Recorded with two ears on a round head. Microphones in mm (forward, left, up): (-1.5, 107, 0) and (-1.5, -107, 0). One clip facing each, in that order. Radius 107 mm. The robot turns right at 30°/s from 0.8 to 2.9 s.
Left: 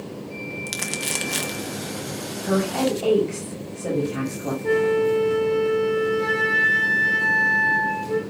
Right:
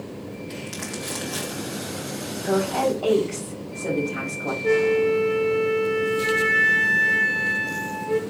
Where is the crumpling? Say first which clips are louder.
Even; 55° left (ahead or behind), 1.4 m; by 1.7 s 25° left (ahead or behind), 1.4 m.